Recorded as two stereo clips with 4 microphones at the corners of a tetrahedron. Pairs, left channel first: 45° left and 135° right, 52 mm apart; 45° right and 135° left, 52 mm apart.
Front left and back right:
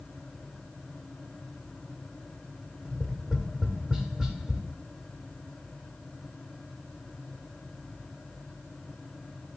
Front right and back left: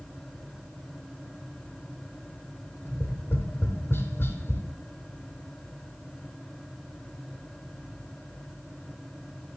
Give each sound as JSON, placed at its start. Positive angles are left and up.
{"t": 2.9, "sound": "tapping", "azimuth_deg": -60, "distance_m": 1.0}